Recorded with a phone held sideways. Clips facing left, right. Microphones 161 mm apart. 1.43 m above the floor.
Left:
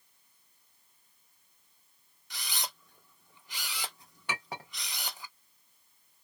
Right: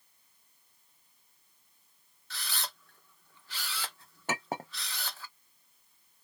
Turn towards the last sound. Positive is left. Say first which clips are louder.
# right 5 dB
turn(degrees=-45)  # may be behind; listen again after turning